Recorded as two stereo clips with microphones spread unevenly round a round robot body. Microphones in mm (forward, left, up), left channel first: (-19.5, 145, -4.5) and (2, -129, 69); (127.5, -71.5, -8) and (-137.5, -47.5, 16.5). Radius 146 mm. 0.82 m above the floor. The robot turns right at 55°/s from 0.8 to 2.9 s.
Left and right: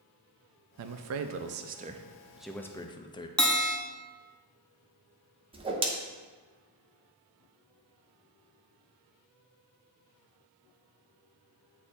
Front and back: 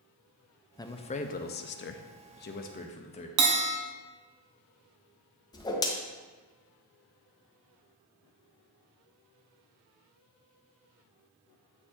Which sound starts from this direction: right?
A man speaking, at 0.8 s.